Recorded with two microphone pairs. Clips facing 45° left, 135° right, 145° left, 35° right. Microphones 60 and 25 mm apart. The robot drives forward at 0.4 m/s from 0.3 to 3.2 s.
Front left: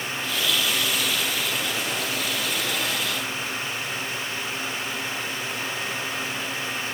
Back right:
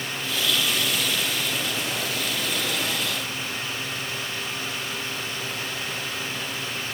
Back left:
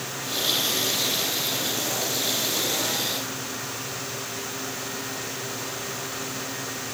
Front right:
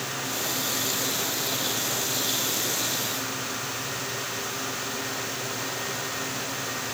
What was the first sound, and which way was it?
Only background noise.